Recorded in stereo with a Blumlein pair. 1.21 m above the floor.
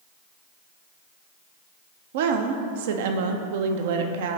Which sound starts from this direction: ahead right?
A woman speaking, at 2.1 s.